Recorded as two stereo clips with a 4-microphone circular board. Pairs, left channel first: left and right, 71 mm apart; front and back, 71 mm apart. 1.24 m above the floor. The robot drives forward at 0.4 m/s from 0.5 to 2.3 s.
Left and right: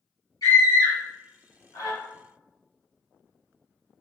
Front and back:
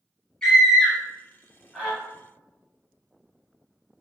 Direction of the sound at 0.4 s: 80° left.